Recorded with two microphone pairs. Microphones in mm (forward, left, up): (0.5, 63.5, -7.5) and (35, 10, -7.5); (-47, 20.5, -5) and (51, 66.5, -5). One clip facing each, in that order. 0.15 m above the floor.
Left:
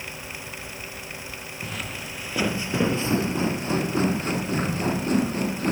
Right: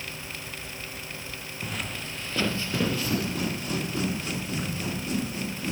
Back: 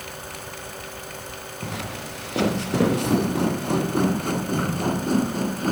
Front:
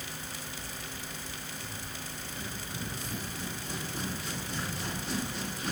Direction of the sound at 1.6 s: 145° right.